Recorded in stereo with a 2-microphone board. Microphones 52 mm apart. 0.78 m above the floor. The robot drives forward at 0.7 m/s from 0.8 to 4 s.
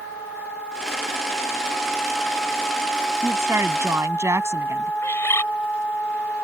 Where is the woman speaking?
55° right (ahead or behind); by 4.9 s 60° right (ahead or behind).